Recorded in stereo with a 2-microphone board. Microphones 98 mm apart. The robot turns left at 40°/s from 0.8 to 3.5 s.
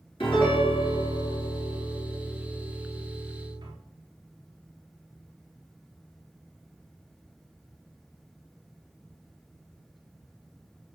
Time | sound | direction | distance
0.2 | a piano | 60° left | 4.5 m